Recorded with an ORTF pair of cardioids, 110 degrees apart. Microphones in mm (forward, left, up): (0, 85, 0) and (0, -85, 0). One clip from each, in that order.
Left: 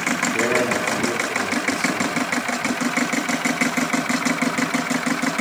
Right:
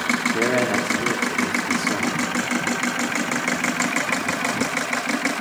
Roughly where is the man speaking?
Ahead.